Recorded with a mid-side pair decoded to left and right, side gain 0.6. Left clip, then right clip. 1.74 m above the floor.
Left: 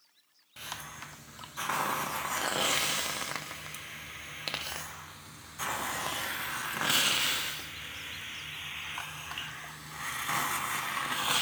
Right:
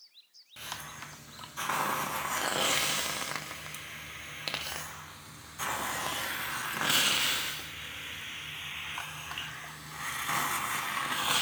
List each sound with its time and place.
0.6 s a hiss: straight ahead, 0.9 m